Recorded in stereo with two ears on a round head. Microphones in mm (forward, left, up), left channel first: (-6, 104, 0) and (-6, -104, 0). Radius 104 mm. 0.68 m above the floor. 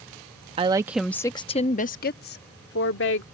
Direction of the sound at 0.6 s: 25° right (ahead or behind).